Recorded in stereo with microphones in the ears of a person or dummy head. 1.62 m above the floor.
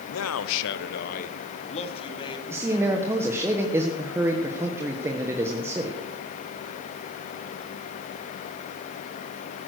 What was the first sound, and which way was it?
A man speaking, 80° left.